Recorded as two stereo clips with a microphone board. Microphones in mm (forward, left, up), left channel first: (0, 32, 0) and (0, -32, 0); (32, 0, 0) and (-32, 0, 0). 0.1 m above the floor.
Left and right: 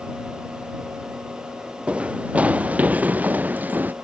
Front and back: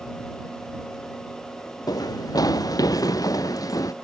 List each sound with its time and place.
1.9 s running footsteps: 15° right; by 3.9 s 25° right